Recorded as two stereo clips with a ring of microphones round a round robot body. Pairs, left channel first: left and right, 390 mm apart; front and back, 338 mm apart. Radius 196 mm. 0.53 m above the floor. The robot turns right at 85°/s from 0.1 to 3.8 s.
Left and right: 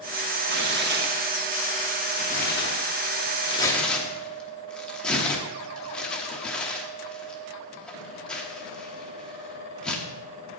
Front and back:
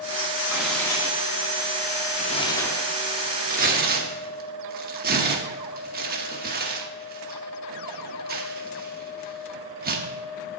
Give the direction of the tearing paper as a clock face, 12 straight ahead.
4 o'clock.